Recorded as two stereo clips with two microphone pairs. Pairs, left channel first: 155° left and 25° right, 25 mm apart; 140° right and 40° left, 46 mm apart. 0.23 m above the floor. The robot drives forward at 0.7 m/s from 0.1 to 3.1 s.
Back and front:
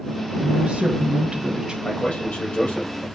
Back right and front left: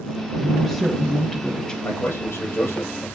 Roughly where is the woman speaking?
Ahead right.